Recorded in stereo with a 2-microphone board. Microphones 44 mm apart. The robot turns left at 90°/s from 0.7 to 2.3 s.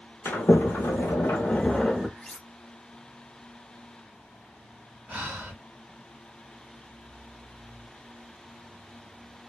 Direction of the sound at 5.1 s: 45° right (ahead or behind).